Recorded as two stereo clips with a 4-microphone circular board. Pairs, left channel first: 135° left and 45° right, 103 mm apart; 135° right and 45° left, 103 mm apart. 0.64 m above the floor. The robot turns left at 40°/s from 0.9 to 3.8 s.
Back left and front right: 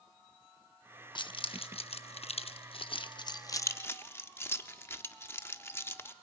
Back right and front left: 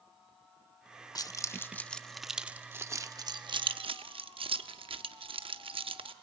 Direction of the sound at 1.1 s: 175° left.